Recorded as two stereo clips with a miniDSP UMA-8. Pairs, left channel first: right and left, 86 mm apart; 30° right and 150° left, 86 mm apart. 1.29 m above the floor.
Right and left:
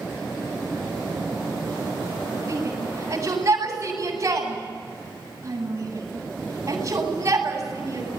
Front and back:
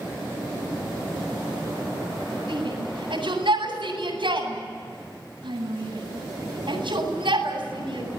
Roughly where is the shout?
Behind left.